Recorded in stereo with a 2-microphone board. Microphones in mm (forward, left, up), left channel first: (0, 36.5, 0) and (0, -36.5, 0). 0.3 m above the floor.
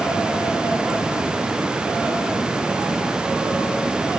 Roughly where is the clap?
No clap in this recording.